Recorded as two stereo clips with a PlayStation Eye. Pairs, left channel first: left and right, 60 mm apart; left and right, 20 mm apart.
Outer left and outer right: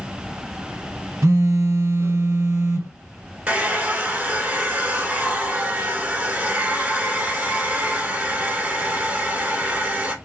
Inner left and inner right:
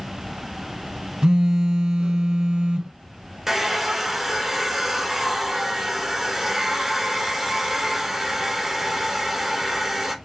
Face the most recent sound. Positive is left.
turn(degrees=-30)  # may be behind; listen again after turning